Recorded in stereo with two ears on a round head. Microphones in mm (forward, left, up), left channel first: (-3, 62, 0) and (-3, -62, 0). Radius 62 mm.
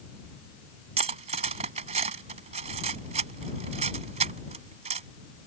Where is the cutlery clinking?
50° right (ahead or behind).